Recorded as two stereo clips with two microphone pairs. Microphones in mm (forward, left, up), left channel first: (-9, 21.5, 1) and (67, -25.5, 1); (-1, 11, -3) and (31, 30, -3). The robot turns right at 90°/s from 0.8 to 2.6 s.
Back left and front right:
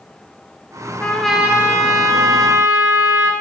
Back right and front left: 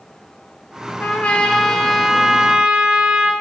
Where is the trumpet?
145° right, 1.1 m; by 3.3 s 5° right, 1.1 m.